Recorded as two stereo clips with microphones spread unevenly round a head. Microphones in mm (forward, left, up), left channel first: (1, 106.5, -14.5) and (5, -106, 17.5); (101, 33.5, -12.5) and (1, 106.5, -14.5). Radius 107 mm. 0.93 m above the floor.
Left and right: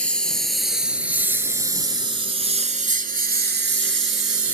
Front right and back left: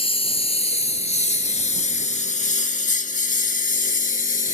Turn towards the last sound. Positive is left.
turn(degrees=-70)